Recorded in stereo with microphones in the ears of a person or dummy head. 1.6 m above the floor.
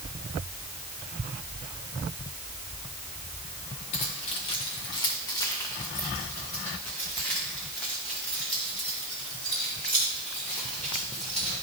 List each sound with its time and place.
3.9 s keys jangling: 25° left (ahead or behind), 0.7 m; by 11.6 s 5° left (ahead or behind), 4 m